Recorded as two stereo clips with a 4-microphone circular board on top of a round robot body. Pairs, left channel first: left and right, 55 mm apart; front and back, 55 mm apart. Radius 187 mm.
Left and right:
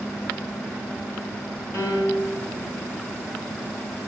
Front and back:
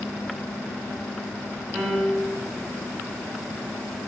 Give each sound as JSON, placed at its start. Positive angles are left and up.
{"t": 1.7, "sound": "a piano", "azimuth_deg": 85, "distance_m": 7.5}